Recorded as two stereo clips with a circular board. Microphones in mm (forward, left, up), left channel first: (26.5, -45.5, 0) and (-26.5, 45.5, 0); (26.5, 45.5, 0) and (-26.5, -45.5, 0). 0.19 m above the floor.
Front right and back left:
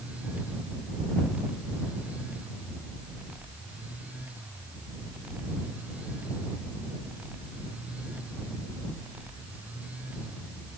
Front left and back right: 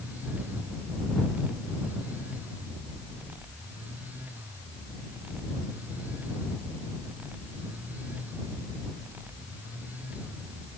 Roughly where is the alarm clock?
No alarm clock in this recording.